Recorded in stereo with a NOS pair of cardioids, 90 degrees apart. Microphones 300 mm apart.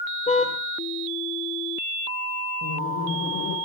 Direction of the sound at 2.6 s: 70° left.